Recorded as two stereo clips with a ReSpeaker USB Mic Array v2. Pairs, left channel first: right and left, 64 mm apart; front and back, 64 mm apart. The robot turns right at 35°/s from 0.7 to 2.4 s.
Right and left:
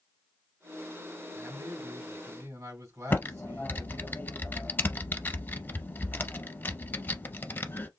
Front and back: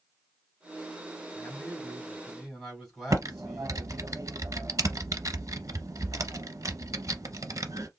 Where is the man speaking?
50° left, 3 m; by 4.1 s 90° left, 3 m.